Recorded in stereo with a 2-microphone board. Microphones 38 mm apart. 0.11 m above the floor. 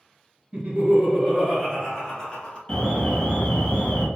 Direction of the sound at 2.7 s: 20° left (ahead or behind).